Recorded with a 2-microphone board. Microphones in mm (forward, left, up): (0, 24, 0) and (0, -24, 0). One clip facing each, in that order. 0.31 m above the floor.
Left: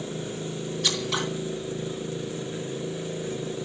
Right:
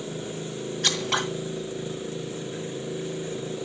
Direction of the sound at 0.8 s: 55° right (ahead or behind).